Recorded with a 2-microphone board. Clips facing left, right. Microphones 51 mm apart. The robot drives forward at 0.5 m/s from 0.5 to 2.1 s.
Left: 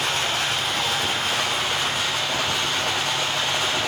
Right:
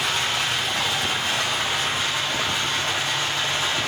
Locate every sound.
0.0 s running water: 50° left (ahead or behind), 2 m; by 3.9 s 70° left (ahead or behind), 1.8 m